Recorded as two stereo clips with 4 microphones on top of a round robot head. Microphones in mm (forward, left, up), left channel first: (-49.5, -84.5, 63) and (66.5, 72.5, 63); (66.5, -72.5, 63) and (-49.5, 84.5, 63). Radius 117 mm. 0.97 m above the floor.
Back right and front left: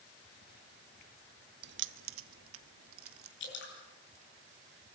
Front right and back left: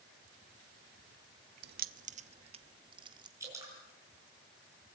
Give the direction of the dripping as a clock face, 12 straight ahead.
5 o'clock.